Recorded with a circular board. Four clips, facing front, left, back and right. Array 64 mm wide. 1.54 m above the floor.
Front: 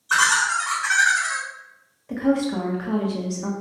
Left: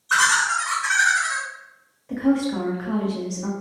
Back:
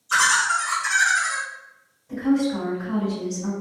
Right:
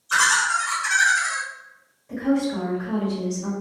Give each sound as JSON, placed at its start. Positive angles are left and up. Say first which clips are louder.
{"t": 0.1, "sound": "laughter", "louder": "left 1 dB, even", "azimuth_deg": 30, "distance_m": 1.4}
{"t": 2.1, "sound": "a woman speaking", "louder": "left 2 dB, even", "azimuth_deg": 25, "distance_m": 0.8}